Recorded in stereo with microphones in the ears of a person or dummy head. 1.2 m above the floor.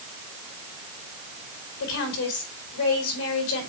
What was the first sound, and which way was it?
A woman speaking, 80° left.